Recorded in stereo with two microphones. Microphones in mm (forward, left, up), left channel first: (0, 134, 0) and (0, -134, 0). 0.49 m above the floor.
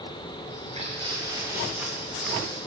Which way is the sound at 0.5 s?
30° right (ahead or behind).